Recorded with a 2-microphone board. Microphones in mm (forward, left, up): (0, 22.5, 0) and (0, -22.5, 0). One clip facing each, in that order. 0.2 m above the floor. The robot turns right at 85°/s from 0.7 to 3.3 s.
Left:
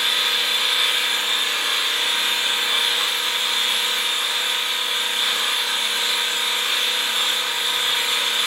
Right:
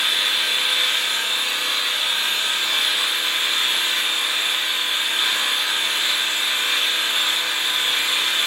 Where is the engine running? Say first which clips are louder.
Even; 5° right, 1.0 m; by 8.5 s 145° right, 1.0 m.